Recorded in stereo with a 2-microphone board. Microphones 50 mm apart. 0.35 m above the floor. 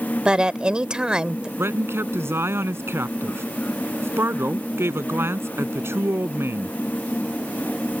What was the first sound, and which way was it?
A woman speaking, 20° right (ahead or behind).